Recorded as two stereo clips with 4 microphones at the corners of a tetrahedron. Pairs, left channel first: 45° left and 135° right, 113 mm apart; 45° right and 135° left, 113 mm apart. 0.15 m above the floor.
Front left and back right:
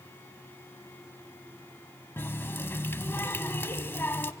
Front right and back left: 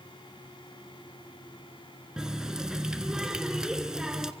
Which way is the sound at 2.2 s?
65° left.